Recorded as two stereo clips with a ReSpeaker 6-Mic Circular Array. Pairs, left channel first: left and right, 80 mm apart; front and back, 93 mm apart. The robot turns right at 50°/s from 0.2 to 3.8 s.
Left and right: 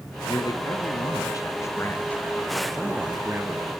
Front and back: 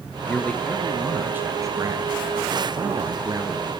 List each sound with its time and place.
0.2 s a man speaking: 60° left, 2.5 m; by 3.7 s 125° right, 2.5 m